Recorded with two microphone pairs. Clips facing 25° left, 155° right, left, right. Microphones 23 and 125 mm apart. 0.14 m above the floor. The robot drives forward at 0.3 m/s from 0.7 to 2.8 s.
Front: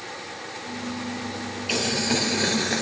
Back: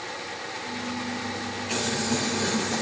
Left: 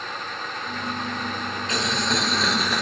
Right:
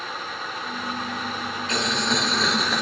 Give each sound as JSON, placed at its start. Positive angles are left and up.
{"t": 1.7, "sound": "boiling", "azimuth_deg": 0, "distance_m": 1.1}